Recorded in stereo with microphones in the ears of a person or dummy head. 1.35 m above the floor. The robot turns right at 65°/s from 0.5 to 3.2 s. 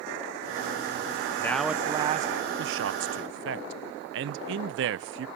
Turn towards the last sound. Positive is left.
turn(degrees=-65)  # may be behind; listen again after turning